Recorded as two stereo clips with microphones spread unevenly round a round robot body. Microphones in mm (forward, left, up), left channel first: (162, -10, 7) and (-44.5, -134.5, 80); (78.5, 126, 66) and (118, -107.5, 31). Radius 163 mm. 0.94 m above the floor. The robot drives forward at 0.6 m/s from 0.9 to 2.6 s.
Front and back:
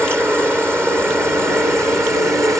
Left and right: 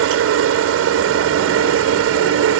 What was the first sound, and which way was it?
A helicopter, 65° right.